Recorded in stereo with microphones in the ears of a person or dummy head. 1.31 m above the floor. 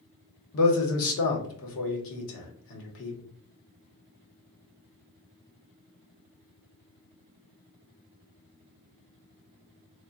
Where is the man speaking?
80° left, 0.9 m.